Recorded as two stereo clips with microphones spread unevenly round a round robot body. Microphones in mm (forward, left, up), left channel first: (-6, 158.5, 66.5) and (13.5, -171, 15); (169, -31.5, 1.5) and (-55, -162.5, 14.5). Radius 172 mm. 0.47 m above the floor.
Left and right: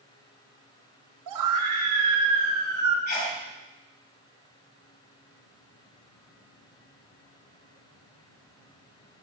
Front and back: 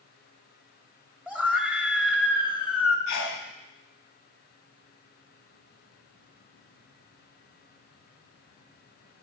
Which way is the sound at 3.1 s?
30° left.